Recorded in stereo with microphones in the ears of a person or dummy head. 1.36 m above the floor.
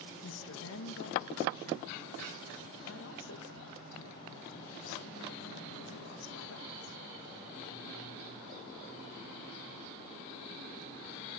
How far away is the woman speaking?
About 1.8 m.